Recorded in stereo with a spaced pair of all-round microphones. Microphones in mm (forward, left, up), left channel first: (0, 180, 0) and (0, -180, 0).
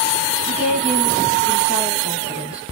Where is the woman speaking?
5° right (ahead or behind), 4.5 m.